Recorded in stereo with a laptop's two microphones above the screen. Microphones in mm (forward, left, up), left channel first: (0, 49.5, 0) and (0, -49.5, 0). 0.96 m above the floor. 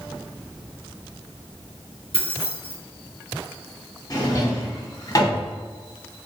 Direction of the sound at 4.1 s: 35° left (ahead or behind).